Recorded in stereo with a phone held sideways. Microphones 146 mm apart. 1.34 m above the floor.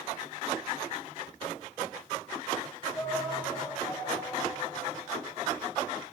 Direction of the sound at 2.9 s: 15° left (ahead or behind).